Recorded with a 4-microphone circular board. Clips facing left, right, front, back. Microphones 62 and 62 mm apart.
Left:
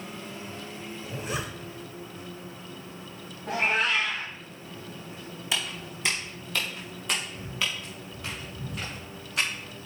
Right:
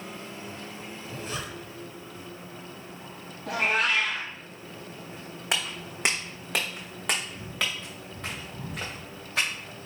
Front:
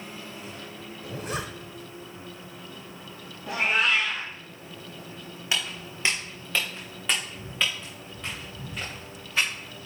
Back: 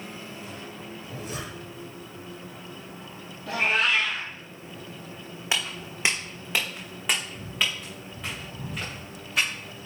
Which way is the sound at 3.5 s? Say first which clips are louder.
Even, even; 80° right.